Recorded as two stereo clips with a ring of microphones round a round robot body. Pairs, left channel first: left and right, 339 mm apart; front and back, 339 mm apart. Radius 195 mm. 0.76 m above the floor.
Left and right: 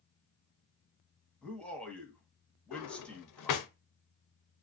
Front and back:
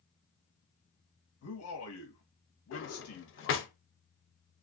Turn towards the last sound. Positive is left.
turn(degrees=55)